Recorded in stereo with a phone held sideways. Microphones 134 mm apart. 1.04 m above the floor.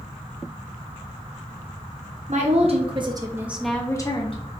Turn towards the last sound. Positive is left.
turn(degrees=45)  # may be behind; listen again after turning